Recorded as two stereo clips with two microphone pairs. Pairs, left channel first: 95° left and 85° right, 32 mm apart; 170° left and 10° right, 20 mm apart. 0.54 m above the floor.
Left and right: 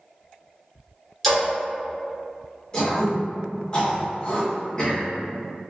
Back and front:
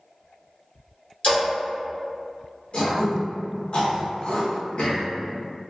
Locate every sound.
1.2 s a splash: 175° left, 1.0 m
2.7 s throat clearing: 150° left, 1.1 m